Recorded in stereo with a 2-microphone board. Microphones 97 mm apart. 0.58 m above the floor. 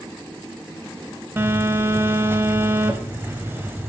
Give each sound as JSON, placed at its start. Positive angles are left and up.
{"t": 1.4, "sound": "a phone buzzing", "side_deg": -25, "distance_m": 0.8}